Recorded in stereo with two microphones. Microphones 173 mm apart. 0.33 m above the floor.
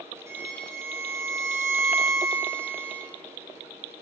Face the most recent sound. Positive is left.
turn(degrees=-15)  # may be behind; listen again after turning